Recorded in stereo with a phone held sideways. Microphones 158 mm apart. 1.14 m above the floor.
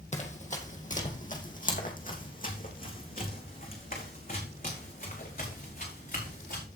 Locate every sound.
0.1 s running footsteps: 45° left (ahead or behind), 2 m; by 6.6 s 65° left (ahead or behind), 5.5 m